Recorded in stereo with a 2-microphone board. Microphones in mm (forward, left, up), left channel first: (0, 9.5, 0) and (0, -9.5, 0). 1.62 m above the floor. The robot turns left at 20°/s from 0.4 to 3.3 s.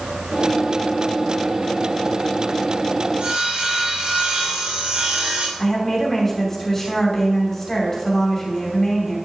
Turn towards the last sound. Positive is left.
turn(degrees=15)  # may be behind; listen again after turning